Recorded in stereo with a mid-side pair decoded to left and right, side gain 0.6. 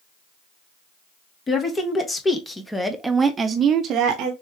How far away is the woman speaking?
About 1.4 m.